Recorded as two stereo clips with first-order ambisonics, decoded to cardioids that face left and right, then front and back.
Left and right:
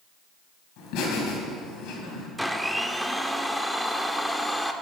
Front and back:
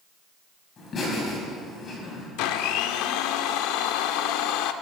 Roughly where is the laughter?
Ahead left.